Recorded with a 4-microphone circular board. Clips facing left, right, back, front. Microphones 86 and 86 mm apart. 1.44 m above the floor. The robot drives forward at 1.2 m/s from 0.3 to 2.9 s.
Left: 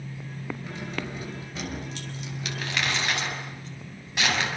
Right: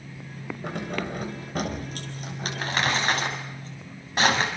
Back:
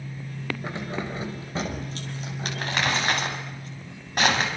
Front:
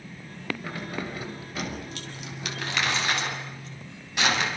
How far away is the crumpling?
About 6.5 m.